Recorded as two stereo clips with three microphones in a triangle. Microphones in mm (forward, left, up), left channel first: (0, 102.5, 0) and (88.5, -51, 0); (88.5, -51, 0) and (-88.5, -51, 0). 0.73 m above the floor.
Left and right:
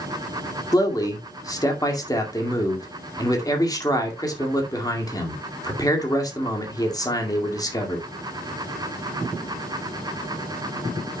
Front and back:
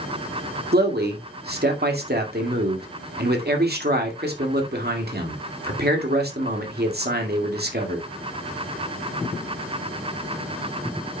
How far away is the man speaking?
About 2.0 m.